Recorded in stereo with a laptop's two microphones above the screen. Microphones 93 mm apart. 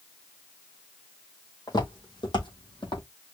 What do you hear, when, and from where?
1.7 s footsteps: 45° left (ahead or behind), 2.5 m; by 3.0 s 65° left (ahead or behind), 2.5 m